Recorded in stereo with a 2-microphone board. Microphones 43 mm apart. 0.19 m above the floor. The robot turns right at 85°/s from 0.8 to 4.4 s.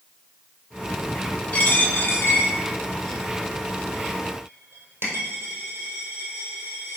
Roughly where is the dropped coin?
Left.